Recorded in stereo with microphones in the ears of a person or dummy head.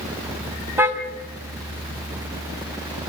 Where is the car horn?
15° right (ahead or behind), 4 m.